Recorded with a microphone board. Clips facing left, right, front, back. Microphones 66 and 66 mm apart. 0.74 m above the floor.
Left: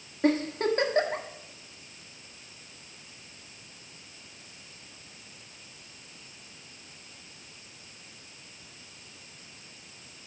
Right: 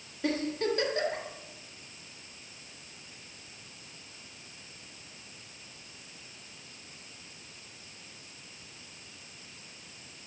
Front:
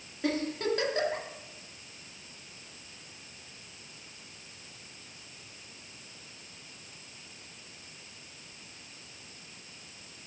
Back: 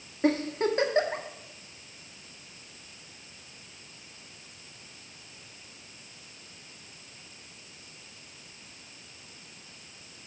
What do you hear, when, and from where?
0.2 s a giggle: 125° left, 1.5 m